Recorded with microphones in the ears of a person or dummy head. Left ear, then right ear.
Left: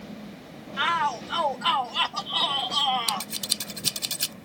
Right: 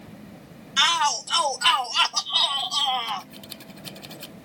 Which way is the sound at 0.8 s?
85° right.